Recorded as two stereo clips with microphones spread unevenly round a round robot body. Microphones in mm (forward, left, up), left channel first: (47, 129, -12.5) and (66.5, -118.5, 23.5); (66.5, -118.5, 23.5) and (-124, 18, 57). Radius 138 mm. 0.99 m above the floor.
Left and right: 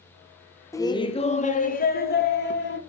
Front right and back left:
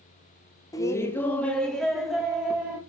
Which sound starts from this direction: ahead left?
Laughter, at 0.7 s.